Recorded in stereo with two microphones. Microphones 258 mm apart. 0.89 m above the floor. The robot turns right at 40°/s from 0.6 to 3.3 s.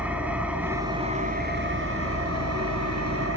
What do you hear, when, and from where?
0.0 s an engine running: 175° right, 3 m; by 3.4 s 65° right, 3 m